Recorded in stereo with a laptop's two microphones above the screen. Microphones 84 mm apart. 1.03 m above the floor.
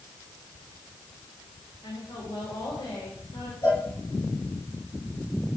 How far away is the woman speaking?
About 3.5 m.